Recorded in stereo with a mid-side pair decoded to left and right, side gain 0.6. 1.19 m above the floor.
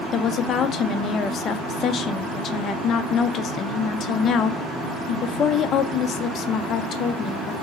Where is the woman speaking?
50° left, 0.9 m.